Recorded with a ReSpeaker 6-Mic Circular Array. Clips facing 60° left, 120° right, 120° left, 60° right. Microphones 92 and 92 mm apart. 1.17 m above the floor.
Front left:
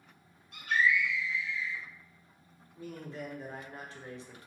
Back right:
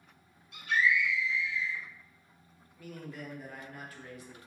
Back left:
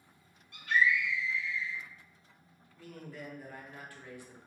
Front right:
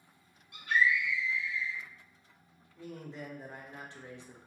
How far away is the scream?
About 1.3 m.